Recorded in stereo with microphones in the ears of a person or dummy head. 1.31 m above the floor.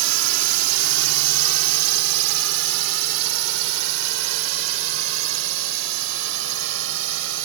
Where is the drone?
80° right; by 7.5 s 75° right (ahead or behind).